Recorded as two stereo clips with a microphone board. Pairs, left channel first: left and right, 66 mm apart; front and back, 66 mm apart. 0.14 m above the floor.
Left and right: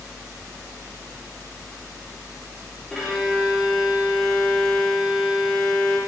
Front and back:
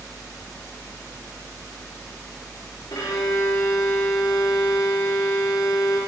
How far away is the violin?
About 8 m.